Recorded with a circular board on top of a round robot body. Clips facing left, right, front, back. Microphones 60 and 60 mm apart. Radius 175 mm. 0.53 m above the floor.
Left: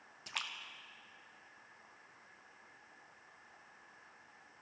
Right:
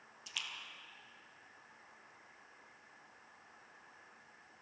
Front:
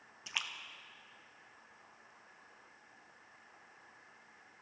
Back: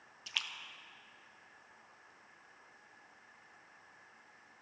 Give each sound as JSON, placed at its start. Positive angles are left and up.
{"t": 0.3, "sound": "a splash", "azimuth_deg": 70, "distance_m": 1.1}